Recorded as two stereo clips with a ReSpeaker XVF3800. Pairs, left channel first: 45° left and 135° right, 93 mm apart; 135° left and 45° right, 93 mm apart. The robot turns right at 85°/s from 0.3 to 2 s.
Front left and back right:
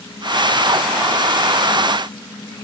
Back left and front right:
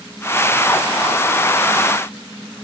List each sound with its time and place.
Only background noise.